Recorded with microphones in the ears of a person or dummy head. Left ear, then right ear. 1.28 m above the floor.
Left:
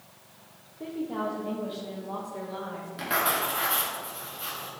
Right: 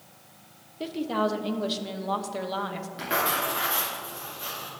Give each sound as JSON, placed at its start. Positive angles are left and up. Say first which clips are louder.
{"t": 0.8, "sound": "a woman speaking", "louder": "right 5 dB", "side_deg": -70, "distance_m": 0.9}
{"t": 3.0, "sound": "writing", "louder": "even", "side_deg": 10, "distance_m": 2.5}